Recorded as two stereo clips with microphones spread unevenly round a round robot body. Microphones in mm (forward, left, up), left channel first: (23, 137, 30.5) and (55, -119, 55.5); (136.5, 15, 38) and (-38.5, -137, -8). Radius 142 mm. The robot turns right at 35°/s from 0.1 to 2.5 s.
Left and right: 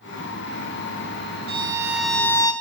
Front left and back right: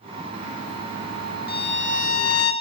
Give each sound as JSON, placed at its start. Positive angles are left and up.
{"t": 1.5, "sound": "a violin", "azimuth_deg": -15, "distance_m": 3.0}